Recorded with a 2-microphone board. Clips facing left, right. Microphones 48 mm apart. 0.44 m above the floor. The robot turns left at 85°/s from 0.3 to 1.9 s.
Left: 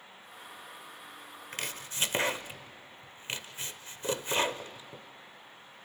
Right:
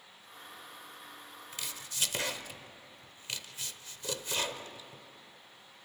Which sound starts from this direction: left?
Chopping, at 1.5 s.